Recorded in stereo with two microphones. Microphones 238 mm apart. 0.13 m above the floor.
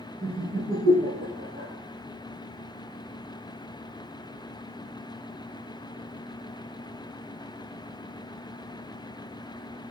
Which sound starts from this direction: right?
Laughter, at 0.2 s.